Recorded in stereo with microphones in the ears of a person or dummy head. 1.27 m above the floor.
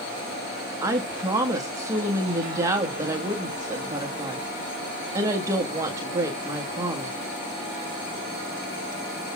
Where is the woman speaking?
20° right (ahead or behind), 1.5 m.